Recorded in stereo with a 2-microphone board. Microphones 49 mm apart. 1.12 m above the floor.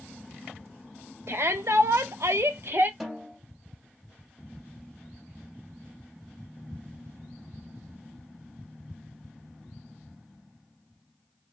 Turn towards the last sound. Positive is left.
turn(degrees=-10)  # may be behind; listen again after turning